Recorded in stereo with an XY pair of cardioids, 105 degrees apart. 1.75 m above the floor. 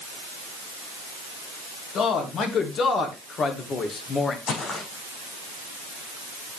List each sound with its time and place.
1.9 s a man speaking: 60° left, 3 m; by 4.4 s 40° left, 2 m
4.5 s footsteps: 55° left, 6.5 m